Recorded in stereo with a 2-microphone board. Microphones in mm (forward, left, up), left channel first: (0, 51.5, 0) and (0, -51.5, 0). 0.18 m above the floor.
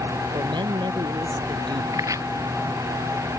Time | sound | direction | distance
0.3 | a man speaking | 50° right (ahead or behind) | ?
1.9 | chopping | 30° right (ahead or behind) | ?